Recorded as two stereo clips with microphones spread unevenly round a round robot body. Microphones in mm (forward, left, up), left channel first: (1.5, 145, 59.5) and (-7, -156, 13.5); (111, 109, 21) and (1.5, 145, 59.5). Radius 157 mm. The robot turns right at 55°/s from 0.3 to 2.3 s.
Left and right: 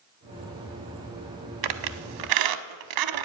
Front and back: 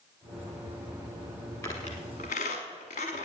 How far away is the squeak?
About 0.7 m.